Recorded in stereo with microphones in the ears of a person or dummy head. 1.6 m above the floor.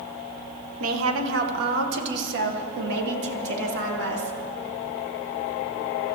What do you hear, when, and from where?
0.8 s a woman speaking: 80° right, 1.4 m; by 4.4 s 65° right (ahead or behind), 3.5 m